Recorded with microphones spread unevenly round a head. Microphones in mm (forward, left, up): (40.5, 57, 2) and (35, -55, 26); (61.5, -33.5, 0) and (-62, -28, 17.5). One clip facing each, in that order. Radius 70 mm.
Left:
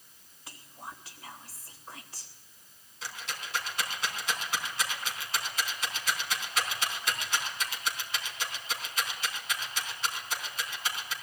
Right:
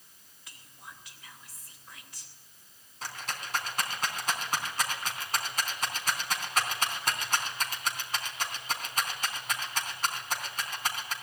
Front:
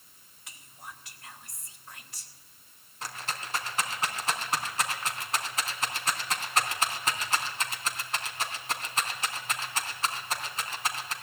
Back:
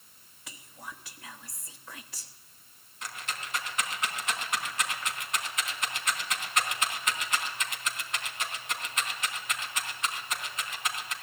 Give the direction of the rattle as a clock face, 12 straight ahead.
2 o'clock.